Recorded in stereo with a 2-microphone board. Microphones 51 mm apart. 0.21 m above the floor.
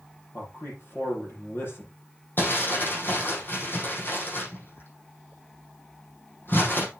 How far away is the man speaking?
About 7 m.